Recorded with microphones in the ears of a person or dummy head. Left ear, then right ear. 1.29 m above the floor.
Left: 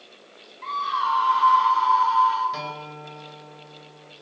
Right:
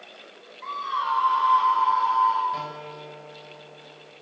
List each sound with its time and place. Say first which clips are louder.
0.6 s a scream: left 3 dB; 10° left (ahead or behind), 9.5 m; by 2.4 s 5° left (ahead or behind), 8 m
2.5 s a guitar: even; 10° left (ahead or behind), 6 m